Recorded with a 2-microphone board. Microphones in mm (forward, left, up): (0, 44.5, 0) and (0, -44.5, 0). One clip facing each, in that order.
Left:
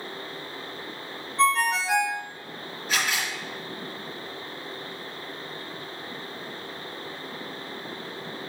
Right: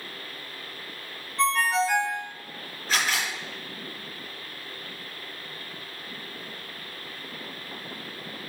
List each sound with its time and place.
1.4 s a ringtone: centre (ahead or behind), 1.7 m
2.9 s a camera shutter: 35° right (ahead or behind), 3.5 m